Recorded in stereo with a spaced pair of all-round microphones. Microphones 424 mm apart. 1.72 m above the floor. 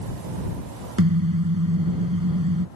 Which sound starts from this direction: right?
A car horn, at 1.0 s.